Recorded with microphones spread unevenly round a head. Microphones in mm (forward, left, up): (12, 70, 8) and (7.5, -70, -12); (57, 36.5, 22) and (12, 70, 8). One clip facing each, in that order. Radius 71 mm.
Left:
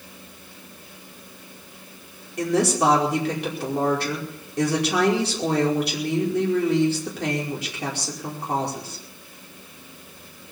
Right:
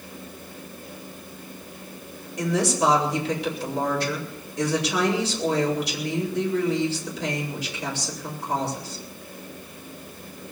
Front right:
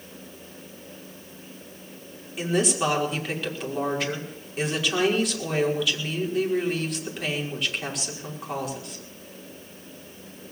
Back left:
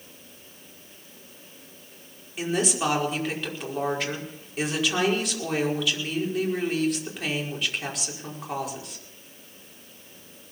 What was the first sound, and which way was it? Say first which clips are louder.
A woman speaking: left 2 dB, front right 2 dB; 55° left.